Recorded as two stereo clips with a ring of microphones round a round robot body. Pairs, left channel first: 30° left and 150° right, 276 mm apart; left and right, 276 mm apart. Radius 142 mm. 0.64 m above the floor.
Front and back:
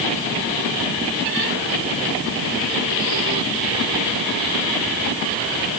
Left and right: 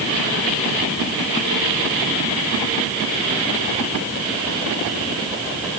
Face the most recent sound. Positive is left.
No sound to turn to.